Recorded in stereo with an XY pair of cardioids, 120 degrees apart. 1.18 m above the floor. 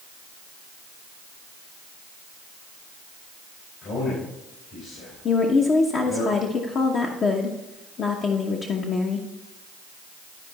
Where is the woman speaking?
50° left, 1.0 m.